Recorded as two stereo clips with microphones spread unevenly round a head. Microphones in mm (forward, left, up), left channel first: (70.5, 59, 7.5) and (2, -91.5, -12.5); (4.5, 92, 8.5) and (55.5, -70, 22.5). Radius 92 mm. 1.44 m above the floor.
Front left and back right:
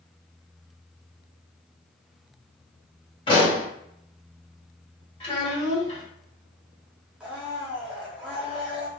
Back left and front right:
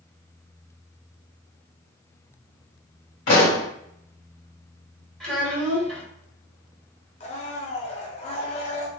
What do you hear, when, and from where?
3.3 s a pop: 120° left, 1.9 m
5.2 s a child speaking: 15° left, 1.6 m
7.2 s a blender: 160° left, 0.6 m